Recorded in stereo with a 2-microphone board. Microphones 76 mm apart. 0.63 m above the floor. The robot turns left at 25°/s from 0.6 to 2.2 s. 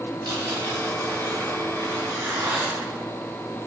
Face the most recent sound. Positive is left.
turn(degrees=-150)